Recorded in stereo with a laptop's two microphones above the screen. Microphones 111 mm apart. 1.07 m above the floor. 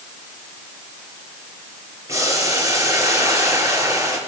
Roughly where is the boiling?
Right.